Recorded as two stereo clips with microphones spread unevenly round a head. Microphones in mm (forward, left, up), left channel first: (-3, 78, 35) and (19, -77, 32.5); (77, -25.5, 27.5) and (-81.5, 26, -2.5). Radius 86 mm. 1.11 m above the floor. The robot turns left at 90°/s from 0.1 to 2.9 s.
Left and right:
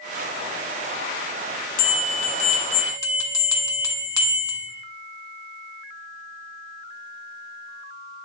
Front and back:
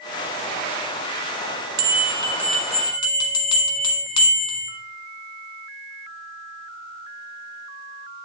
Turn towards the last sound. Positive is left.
turn(degrees=30)